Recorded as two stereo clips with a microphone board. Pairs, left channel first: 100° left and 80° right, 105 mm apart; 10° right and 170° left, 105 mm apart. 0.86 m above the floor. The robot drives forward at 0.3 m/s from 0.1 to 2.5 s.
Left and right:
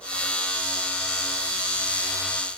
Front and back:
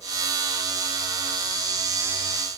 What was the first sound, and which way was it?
Only background noise.